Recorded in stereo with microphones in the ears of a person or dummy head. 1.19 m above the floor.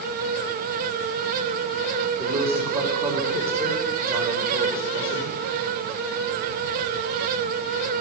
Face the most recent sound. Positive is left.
turn(degrees=-10)  # may be behind; listen again after turning